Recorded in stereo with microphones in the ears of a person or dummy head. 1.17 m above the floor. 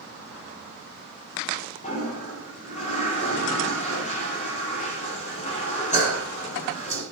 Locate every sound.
1.8 s a toilet flushing: 35° left (ahead or behind), 7.5 m